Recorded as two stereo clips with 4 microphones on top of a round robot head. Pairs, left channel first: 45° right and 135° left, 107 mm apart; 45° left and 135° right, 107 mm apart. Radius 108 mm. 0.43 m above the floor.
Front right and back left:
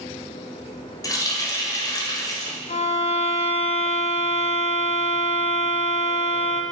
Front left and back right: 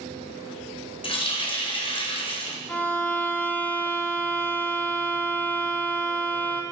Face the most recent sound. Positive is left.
turn(degrees=-30)